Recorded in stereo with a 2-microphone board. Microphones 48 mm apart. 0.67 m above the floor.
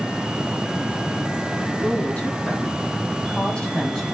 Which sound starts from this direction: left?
A woman speaking, at 1.8 s.